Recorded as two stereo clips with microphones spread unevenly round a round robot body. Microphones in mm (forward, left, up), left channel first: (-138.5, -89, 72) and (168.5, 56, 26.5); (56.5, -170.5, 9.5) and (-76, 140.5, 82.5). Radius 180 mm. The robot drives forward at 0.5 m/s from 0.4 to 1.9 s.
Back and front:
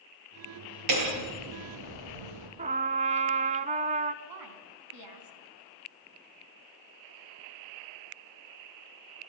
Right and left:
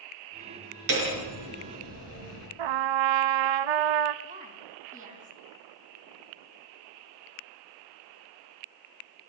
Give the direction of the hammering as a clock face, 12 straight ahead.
10 o'clock.